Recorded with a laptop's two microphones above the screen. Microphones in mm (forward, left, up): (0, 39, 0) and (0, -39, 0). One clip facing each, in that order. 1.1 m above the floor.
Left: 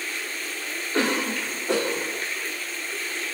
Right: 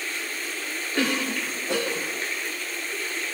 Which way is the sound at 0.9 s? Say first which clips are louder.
Left 2 dB; 75° left (ahead or behind).